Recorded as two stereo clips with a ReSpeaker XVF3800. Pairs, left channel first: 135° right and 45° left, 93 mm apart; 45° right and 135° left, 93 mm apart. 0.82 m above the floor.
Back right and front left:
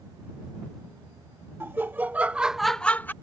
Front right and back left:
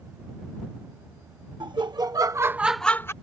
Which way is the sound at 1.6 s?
110° left.